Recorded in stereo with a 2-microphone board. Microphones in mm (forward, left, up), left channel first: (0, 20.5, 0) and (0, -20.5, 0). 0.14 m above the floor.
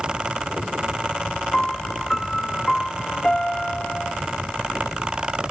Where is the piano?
10° left (ahead or behind).